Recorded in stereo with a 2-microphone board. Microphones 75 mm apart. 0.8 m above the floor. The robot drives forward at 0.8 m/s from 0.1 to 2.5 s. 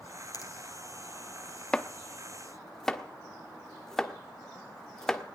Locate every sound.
0.3 s a finger snap: 55° left (ahead or behind), 3.5 m
1.7 s chopping: 10° left (ahead or behind), 0.9 m; by 5.2 s 5° left (ahead or behind), 1.5 m